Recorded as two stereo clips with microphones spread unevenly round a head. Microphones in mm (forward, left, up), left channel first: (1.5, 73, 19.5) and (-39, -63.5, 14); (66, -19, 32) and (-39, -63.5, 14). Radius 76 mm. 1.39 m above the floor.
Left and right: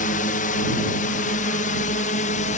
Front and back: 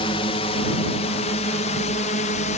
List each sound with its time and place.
0.0 s a drone: 65° left; by 2.6 s 40° left